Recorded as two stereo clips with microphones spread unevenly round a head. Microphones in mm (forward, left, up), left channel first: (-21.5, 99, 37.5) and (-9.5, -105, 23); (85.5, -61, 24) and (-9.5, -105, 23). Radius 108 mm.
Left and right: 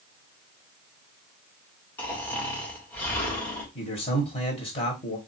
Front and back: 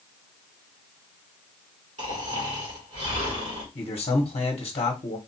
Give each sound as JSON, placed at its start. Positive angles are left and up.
{"t": 2.0, "sound": "snoring", "azimuth_deg": 175, "distance_m": 1.8}
{"t": 3.8, "sound": "a man speaking", "azimuth_deg": 40, "distance_m": 1.2}